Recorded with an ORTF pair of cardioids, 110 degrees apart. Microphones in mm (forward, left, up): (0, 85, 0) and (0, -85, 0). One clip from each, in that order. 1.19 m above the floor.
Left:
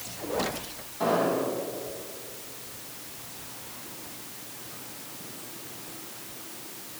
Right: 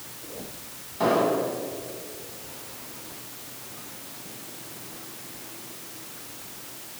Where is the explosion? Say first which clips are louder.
Right 3 dB; 30° right, 6 m.